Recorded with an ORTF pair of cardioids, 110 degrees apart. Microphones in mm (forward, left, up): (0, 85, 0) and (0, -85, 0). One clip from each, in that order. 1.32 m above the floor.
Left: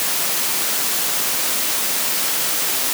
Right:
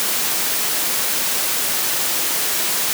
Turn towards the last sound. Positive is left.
No sound to turn to.